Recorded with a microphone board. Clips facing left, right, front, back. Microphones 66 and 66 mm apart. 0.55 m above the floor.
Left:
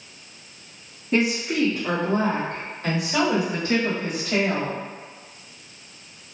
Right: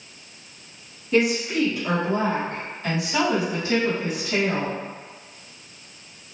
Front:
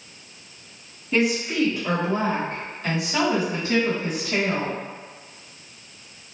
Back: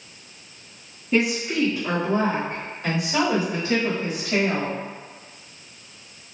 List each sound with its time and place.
1.1 s a woman speaking: 110° left, 1.2 m; by 4.8 s 130° left, 3.5 m